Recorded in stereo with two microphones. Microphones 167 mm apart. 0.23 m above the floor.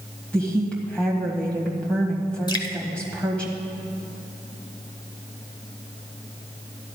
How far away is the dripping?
About 0.8 m.